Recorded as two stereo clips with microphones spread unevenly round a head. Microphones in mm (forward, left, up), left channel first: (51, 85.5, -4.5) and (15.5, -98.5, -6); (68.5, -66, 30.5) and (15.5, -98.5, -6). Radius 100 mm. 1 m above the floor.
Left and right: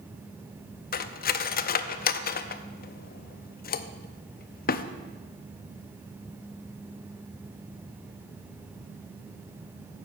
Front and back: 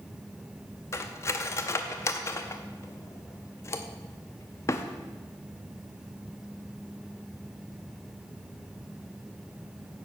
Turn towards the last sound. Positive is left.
turn(degrees=40)